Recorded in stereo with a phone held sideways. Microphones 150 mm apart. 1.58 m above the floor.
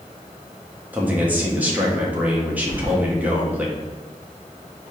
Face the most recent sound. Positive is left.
turn(degrees=-20)  # may be behind; listen again after turning